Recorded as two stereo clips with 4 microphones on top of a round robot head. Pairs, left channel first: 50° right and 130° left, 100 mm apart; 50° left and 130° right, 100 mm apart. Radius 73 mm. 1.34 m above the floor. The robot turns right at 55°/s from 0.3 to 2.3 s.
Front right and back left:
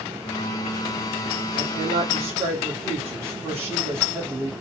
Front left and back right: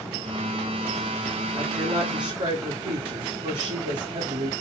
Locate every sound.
1.6 s a woman speaking: 155° left, 1.6 m; by 4.5 s 165° right, 1.6 m